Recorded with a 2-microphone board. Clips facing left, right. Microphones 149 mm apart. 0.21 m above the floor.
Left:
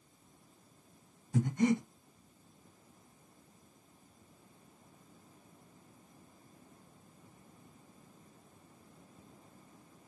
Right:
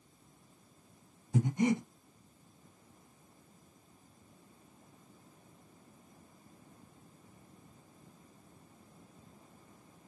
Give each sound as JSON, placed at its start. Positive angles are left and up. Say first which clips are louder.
{"t": 1.3, "sound": "breathing", "louder": "even", "side_deg": -20, "distance_m": 0.8}